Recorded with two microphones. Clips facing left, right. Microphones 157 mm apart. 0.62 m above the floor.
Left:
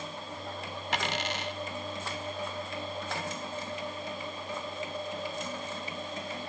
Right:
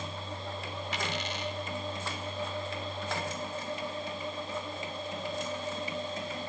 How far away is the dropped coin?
About 1.3 m.